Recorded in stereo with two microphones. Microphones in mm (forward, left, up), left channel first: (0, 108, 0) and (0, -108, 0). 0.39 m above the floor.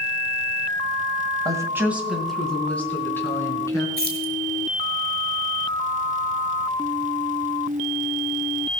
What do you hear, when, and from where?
1.4 s a woman speaking: 20° right (ahead or behind), 2.0 m; by 3.9 s 15° left (ahead or behind), 4.5 m
4.0 s keys jangling: 50° right (ahead or behind), 2 m